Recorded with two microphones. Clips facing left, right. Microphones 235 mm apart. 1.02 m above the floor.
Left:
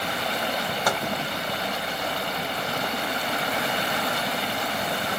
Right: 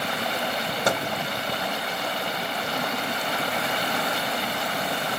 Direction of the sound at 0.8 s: 25° right (ahead or behind).